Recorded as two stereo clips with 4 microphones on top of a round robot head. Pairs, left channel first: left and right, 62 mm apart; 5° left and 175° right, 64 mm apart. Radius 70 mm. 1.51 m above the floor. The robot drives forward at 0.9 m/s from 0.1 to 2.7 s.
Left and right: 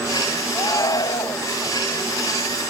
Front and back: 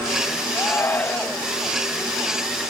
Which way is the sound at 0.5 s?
55° left.